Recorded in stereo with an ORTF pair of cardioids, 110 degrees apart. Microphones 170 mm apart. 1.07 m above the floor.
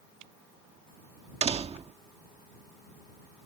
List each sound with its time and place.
1.4 s a door slam: 35° right